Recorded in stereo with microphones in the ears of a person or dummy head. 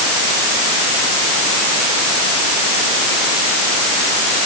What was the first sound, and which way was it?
Only background noise.